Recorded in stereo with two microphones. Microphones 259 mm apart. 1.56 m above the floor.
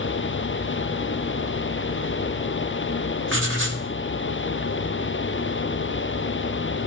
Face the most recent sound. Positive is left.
turn(degrees=-55)  # may be behind; listen again after turning